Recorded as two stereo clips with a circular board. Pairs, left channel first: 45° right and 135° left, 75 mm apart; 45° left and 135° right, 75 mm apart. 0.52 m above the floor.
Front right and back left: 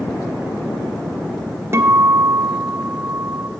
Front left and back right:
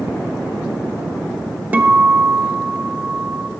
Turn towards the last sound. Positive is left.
turn(degrees=170)